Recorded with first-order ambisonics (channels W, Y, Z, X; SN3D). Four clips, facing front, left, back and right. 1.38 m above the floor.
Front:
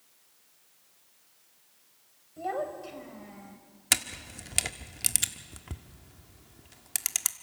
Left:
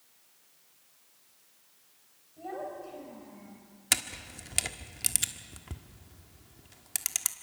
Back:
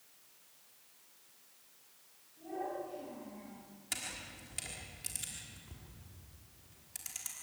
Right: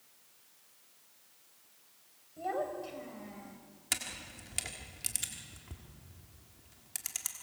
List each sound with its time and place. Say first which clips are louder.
2.4 s a child speaking: right 3 dB, front 7 dB; 20° right, 4 m; by 3.6 s 40° right, 3.5 m
3.9 s a camera shutter: left 7 dB, front 12 dB; 30° left, 1.4 m